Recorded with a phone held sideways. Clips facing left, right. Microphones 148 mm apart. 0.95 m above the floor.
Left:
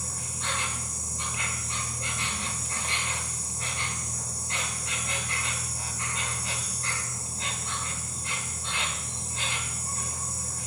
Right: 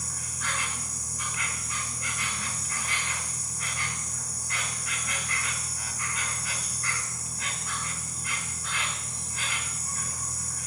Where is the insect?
25° left (ahead or behind), 1.4 m.